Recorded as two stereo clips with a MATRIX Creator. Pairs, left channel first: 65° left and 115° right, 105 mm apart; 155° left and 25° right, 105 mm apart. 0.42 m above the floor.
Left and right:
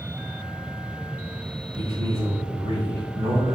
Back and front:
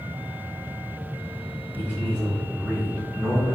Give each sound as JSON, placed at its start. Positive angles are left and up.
{"t": 1.8, "sound": "a man speaking", "azimuth_deg": -135, "distance_m": 5.0}